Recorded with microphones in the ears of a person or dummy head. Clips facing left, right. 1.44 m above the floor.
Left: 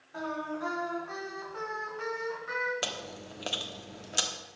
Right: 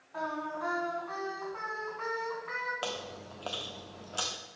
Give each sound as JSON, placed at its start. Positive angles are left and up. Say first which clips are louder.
{"t": 0.1, "sound": "singing", "louder": "left 1 dB", "side_deg": 15, "distance_m": 2.5}
{"t": 2.8, "sound": "chewing", "louder": "right 1 dB", "side_deg": 25, "distance_m": 1.1}